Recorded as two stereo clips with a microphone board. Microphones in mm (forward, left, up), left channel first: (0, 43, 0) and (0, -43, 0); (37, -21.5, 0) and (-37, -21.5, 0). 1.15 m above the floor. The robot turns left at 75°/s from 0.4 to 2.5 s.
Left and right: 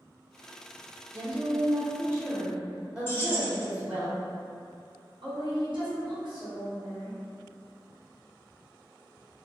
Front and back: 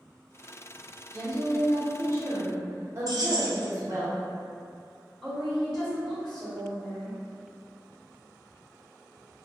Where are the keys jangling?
155° left, 0.6 m.